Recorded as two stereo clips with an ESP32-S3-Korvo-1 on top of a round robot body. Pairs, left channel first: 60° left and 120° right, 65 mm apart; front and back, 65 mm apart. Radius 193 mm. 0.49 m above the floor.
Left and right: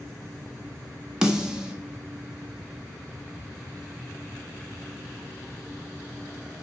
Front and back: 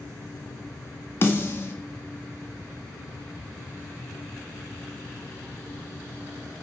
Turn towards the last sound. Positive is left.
turn(degrees=-45)